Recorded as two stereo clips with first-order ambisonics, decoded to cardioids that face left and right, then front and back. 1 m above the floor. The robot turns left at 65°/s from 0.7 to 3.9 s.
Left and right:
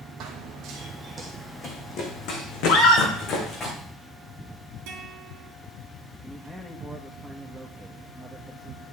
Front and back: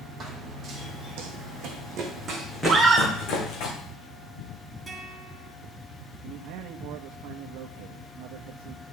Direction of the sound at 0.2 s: 120° right.